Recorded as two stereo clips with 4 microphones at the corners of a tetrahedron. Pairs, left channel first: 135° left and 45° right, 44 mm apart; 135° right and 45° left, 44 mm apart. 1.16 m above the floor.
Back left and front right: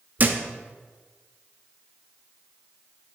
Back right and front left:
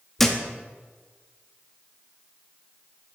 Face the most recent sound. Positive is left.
turn(degrees=-60)